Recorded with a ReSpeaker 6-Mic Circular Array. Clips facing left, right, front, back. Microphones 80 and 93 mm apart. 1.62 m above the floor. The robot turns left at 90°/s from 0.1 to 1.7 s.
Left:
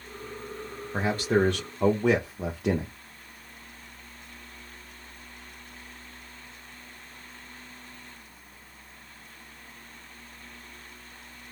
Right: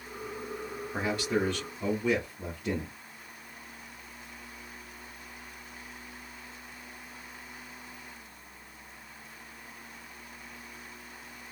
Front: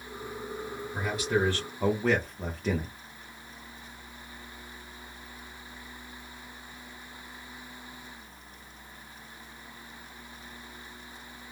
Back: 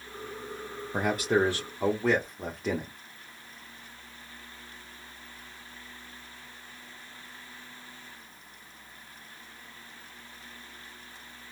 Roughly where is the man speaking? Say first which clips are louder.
Left 5 dB, back 3 dB; behind.